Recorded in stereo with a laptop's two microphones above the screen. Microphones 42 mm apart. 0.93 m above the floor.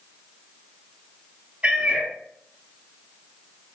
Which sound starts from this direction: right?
A cat meowing, at 1.6 s.